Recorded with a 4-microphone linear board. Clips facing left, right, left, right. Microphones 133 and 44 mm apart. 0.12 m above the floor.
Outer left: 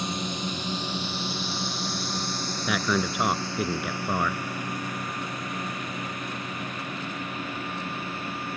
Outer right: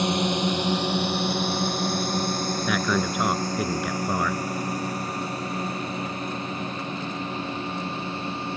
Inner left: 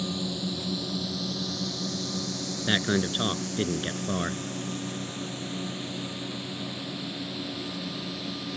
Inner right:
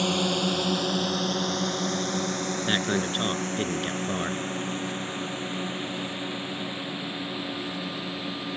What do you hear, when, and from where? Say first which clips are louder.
0.0 s a drone: outer right 8 dB, inner right 7 dB; 70° right (ahead or behind); by 8.6 s 25° right (ahead or behind)
2.6 s a man speaking: even, inner left 2 dB; 5° left (ahead or behind)